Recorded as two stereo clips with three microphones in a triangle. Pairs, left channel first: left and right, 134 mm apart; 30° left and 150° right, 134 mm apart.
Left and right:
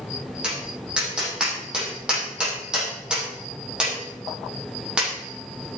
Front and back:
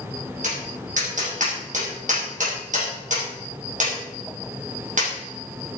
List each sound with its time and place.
0.4 s tapping: 175° right, 6 m